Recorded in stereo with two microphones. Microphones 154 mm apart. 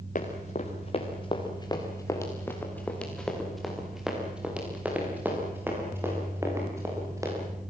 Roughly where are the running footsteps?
Left.